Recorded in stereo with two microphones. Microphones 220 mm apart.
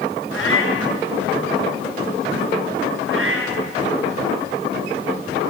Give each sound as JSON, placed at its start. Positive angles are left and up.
{"t": 0.3, "sound": "a cat meowing", "side_deg": 65, "distance_m": 7.5}
{"t": 3.1, "sound": "a cat meowing", "side_deg": -70, "distance_m": 8.0}